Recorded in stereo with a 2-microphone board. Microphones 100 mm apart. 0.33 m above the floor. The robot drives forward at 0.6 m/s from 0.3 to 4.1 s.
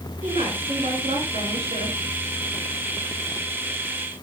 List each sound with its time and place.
0.2 s a woman speaking: 75° right (ahead or behind), 5.5 m